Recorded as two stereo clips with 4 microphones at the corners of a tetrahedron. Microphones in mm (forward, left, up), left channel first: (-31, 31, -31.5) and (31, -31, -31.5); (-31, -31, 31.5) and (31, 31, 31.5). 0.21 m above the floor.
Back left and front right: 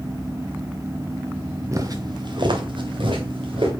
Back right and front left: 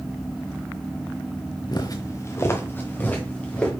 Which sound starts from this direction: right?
Footsteps, at 1.7 s.